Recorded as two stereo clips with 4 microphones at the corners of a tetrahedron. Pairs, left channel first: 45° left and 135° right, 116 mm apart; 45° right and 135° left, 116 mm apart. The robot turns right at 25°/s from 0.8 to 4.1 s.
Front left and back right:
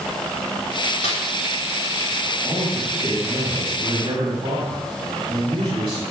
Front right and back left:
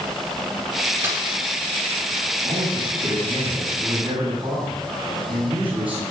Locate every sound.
1.0 s a snare drum: 65° left, 4 m; by 1.2 s 70° left, 4 m
2.4 s a man speaking: 135° left, 8 m; by 6.0 s straight behind, 8 m